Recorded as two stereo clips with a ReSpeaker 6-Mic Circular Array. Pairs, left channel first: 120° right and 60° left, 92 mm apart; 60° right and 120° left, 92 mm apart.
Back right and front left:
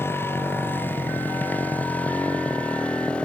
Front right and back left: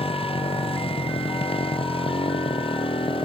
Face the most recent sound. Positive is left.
turn(degrees=-40)